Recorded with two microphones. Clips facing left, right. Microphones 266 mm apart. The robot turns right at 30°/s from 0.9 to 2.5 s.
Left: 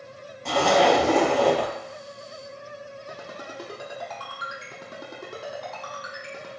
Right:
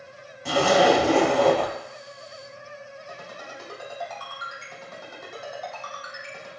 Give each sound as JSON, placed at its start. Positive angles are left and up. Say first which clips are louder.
{"t": 0.5, "sound": "a zipper", "louder": "right 1 dB", "side_deg": -5, "distance_m": 1.4}
{"t": 3.1, "sound": "a ringtone", "louder": "left 2 dB", "side_deg": 75, "distance_m": 1.8}